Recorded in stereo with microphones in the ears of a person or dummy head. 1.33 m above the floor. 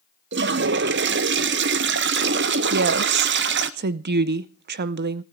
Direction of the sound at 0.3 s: 55° right (ahead or behind).